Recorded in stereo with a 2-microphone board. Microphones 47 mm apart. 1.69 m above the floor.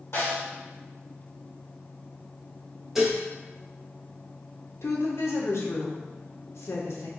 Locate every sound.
0.1 s a snare drum: 65° left (ahead or behind), 1.9 m
3.0 s dishes clattering: 5° right (ahead or behind), 1.2 m
4.8 s a woman speaking: 70° left (ahead or behind), 0.7 m